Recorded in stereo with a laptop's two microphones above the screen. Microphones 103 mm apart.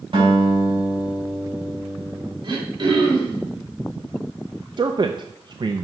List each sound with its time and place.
0.1 s a guitar: 55° right (ahead or behind), 5 m
2.4 s throat clearing: 45° right (ahead or behind), 3 m
4.8 s a man speaking: 45° right (ahead or behind), 0.5 m